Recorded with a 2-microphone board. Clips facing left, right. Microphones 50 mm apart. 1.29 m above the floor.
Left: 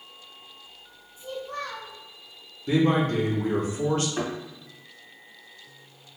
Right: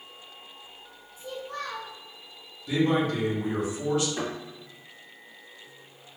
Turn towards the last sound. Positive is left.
turn(degrees=25)  # may be behind; listen again after turning